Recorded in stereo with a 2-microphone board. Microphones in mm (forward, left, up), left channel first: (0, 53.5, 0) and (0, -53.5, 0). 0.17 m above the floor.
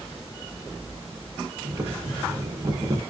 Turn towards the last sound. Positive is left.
turn(degrees=-30)  # may be behind; listen again after turning